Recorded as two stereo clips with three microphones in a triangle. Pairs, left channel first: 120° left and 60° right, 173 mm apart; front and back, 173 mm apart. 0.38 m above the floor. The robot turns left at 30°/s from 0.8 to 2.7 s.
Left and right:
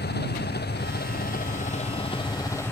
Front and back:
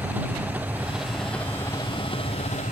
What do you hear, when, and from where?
0.0 s an engine running: 100° left; by 2.7 s 45° left